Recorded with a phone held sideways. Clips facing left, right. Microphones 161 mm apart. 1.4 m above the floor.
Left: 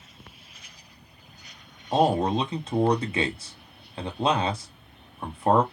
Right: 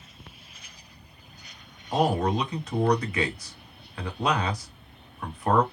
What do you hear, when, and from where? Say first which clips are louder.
1.9 s a man speaking: left 2 dB; 25° left (ahead or behind), 0.8 m